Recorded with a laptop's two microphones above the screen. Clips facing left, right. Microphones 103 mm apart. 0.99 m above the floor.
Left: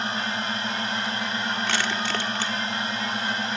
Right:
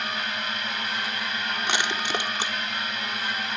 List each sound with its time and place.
0.0 s a drone: 30° left (ahead or behind)
1.7 s crushing: 20° right (ahead or behind)